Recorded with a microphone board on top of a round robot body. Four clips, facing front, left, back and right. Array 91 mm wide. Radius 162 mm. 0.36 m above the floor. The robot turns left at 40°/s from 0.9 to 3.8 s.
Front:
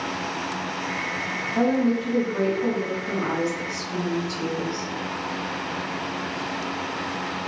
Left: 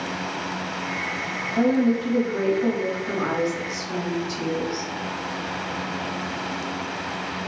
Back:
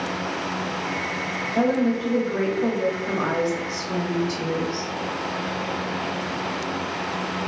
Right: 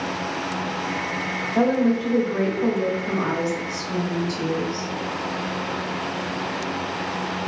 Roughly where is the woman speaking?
Right.